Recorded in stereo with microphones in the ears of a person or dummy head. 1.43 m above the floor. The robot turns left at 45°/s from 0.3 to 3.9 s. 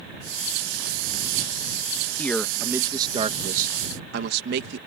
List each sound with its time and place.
2.2 s a man speaking: 15° left; by 4.8 s 65° right